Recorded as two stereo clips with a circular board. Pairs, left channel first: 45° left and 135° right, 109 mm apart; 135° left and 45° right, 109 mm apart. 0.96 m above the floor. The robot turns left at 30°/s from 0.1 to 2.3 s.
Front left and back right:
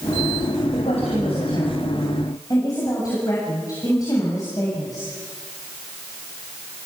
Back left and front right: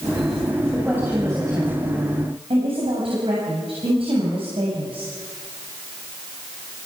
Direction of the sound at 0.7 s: 35° left.